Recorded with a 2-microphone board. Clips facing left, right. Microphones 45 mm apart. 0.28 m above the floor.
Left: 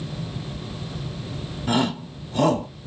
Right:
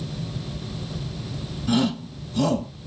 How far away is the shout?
About 1.5 m.